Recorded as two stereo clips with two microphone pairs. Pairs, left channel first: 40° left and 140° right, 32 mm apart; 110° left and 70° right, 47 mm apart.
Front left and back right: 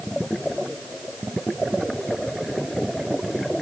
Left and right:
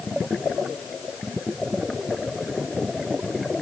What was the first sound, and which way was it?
Only background noise.